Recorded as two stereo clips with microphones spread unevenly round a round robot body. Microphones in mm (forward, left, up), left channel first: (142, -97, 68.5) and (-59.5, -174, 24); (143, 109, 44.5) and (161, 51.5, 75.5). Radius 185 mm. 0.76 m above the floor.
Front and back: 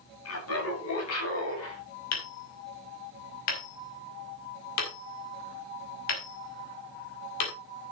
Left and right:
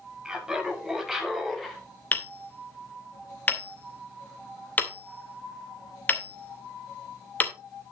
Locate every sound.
0.2 s laughter: 10° left, 5.5 m; by 1.8 s 25° left, 5.5 m
2.1 s hammering: 50° left, 2.5 m